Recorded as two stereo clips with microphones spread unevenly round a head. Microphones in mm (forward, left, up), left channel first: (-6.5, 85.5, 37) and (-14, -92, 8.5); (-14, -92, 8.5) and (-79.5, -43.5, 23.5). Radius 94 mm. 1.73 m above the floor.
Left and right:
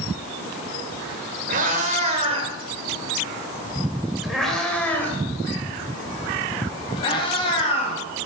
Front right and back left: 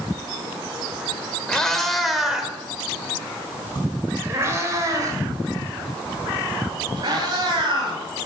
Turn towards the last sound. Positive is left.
turn(degrees=140)